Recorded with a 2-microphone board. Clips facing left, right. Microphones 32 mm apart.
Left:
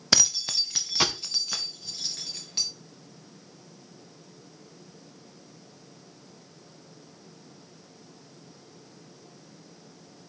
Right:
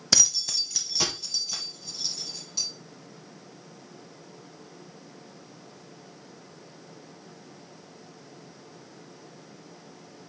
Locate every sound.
0.1 s keys jangling: 15° left (ahead or behind), 0.6 m; by 2.7 s 45° left (ahead or behind), 2.5 m